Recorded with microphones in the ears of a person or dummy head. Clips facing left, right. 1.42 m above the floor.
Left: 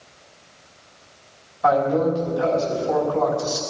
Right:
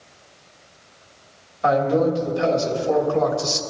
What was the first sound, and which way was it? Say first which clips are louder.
A man speaking: even; 40° right (ahead or behind).